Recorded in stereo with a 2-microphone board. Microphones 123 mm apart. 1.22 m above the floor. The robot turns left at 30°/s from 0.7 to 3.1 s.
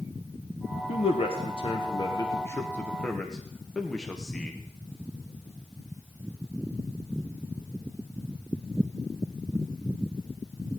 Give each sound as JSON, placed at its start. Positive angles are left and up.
{"t": 0.9, "sound": "a man speaking", "side_deg": 60, "distance_m": 1.3}